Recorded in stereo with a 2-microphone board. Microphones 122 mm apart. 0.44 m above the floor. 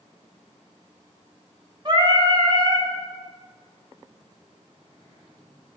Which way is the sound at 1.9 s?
40° right (ahead or behind).